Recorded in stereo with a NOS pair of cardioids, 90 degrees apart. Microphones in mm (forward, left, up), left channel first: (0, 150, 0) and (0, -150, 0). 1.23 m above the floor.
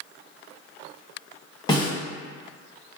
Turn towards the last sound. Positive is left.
turn(degrees=15)